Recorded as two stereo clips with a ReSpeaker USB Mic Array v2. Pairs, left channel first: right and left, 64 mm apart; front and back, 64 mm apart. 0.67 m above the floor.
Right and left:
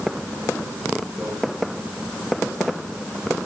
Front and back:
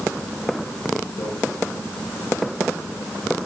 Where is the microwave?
5° left, 7.5 m.